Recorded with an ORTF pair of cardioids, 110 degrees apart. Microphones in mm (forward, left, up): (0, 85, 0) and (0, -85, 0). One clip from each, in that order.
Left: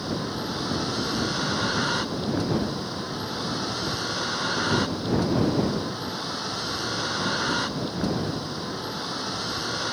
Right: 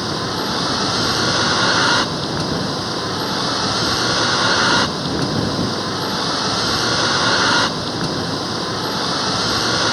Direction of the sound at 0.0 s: 60° right.